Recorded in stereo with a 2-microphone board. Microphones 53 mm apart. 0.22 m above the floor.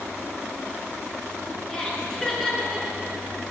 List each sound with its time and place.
1.7 s laughter: 15° left (ahead or behind), 3 m; by 3.1 s 5° right (ahead or behind), 2.5 m